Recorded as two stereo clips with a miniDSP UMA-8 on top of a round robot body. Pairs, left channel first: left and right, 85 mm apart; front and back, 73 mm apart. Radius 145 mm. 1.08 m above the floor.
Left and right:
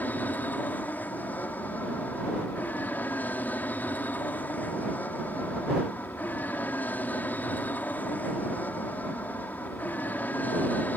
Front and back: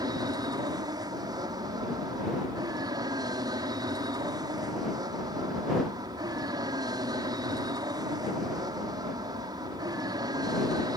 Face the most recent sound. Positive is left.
turn(degrees=160)